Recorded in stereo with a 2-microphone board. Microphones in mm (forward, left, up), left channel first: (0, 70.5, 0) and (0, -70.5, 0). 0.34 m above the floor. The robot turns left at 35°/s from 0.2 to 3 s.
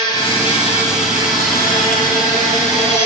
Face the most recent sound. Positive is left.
turn(degrees=50)